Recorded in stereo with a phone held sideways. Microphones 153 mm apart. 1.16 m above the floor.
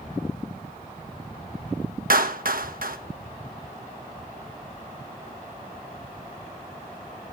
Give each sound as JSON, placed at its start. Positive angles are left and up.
{"t": 2.1, "sound": "a clap", "side_deg": -70, "distance_m": 1.3}